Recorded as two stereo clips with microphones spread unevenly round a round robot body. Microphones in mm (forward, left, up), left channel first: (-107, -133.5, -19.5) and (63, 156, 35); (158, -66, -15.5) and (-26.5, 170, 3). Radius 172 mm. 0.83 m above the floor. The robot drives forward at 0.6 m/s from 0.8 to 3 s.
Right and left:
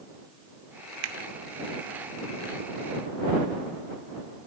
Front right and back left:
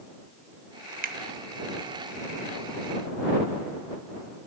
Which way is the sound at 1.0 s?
65° left.